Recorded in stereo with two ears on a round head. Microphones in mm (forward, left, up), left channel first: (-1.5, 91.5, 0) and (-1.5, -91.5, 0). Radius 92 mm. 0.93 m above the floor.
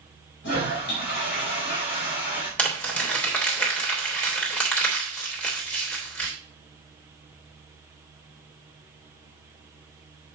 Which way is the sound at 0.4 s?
60° left (ahead or behind).